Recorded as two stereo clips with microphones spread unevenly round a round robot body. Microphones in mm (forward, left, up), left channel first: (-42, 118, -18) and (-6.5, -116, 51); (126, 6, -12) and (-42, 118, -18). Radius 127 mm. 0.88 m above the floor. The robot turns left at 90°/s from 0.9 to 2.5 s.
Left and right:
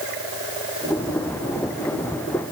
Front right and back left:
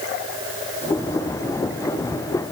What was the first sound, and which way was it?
Only background noise.